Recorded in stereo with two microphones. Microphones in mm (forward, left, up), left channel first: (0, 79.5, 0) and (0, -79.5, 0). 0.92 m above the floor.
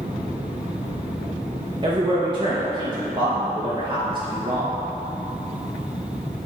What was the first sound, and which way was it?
A man speaking, 30° right (ahead or behind).